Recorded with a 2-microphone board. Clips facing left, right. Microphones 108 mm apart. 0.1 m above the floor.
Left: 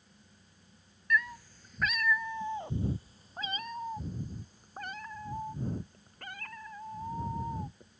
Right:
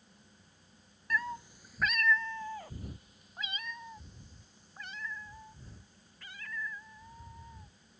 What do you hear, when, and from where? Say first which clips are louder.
1.1 s a cat meowing: left 3 dB; 40° right (ahead or behind); by 7.9 s 50° left (ahead or behind)